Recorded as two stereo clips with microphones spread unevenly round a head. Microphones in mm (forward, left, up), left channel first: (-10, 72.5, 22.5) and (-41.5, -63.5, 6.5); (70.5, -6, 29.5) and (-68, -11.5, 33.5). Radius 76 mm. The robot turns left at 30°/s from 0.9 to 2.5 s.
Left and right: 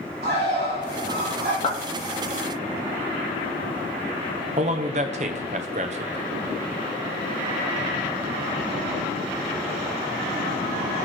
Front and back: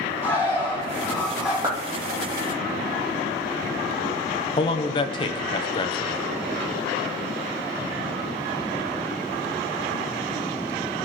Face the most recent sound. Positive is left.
turn(degrees=-55)